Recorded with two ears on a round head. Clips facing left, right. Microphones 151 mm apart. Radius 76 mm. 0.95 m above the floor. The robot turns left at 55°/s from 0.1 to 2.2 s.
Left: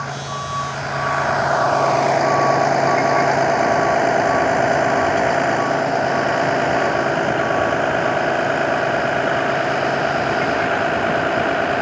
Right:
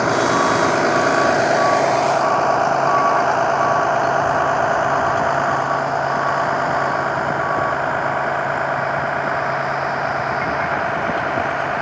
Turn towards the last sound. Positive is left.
turn(degrees=35)  # may be behind; listen again after turning